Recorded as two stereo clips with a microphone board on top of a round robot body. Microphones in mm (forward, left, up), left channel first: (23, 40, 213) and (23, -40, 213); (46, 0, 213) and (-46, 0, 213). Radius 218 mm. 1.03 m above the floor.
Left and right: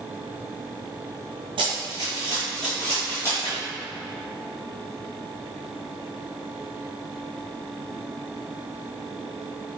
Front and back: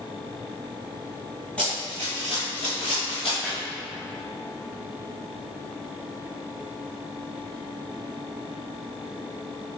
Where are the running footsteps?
80° right, 1.3 m; by 3.3 s 30° left, 1.7 m.